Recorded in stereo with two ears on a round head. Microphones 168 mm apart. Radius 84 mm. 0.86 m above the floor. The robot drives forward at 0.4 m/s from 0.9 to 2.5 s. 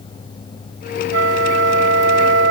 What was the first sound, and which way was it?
A flute, 75° right (ahead or behind).